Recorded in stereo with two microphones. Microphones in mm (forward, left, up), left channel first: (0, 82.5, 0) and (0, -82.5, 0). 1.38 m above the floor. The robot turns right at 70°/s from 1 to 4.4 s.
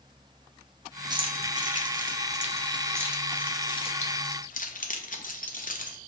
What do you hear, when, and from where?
1.1 s keys jangling: 25° right (ahead or behind), 0.6 m; by 6.0 s 60° left (ahead or behind), 0.6 m